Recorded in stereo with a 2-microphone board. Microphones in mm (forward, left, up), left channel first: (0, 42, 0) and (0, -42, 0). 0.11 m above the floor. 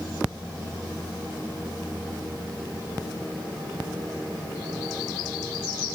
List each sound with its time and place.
Only background noise.